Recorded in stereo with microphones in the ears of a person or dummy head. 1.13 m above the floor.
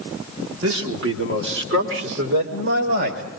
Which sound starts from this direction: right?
A man speaking, at 0.6 s.